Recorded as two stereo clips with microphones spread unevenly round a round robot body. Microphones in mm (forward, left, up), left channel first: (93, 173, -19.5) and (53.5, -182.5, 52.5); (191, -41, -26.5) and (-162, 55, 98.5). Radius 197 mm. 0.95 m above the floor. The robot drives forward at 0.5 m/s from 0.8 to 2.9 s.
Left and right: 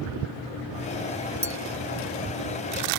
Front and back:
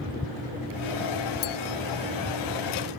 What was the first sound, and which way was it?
A clink, straight ahead.